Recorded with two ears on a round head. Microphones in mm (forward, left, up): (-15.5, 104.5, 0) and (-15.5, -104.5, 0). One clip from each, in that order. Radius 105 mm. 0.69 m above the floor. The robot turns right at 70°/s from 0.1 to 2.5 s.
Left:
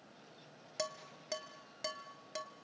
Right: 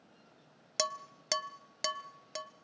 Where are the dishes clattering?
40° right (ahead or behind), 0.6 m; by 2.5 s 5° right (ahead or behind), 0.6 m.